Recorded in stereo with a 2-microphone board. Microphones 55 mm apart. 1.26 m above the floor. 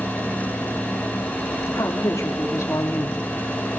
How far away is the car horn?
No car horn in this recording.